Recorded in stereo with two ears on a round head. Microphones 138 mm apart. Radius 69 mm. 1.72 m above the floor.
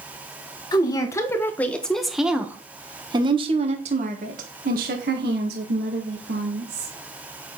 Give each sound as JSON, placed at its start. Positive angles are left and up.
{"t": 0.7, "sound": "a woman speaking", "side_deg": 25, "distance_m": 1.7}